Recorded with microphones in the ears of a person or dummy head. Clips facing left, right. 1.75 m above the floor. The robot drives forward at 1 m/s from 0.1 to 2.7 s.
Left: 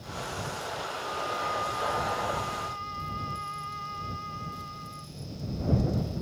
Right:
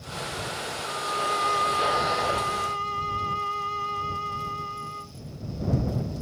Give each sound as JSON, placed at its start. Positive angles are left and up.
{"t": 0.8, "sound": "a violin", "side_deg": -85}